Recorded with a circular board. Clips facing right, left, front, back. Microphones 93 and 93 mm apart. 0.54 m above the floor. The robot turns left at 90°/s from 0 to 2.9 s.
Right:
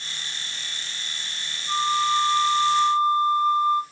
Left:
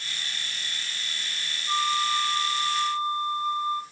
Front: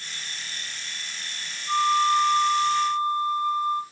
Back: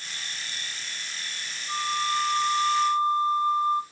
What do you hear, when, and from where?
1.7 s a flute: 5° right, 1.4 m; by 3.8 s 115° right, 1.4 m